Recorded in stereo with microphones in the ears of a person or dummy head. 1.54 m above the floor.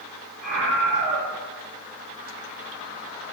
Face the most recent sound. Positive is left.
turn(degrees=0)  # may be behind; listen again after turning